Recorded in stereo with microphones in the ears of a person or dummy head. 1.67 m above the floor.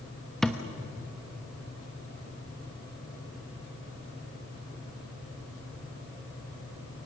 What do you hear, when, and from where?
0.4 s a thud: centre (ahead or behind), 1.1 m